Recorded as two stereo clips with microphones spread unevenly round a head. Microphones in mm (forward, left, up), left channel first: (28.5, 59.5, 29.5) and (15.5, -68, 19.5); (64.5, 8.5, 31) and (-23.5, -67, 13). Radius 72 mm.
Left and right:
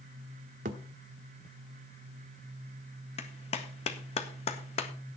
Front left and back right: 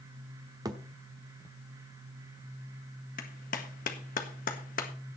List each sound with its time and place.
0.7 s a thud: 80° right, 1.2 m
3.2 s a clap: 45° left, 1.6 m